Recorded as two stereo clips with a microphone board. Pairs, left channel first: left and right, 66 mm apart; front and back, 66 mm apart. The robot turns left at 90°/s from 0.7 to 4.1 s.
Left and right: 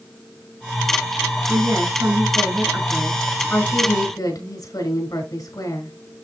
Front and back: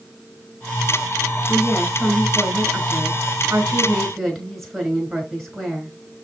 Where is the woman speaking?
40° right, 5 m; by 6.0 s 85° left, 5 m.